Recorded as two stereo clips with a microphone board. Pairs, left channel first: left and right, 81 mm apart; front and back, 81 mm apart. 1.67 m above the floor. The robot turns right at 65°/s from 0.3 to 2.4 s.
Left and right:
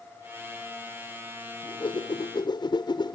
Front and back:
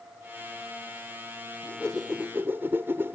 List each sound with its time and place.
1.6 s a whoosh: 65° left; by 3.2 s 115° left